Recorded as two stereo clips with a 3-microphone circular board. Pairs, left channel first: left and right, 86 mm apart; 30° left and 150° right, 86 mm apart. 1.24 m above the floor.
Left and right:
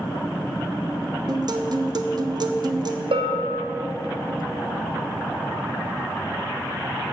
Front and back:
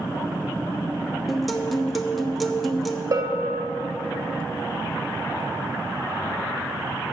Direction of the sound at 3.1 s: 100° right.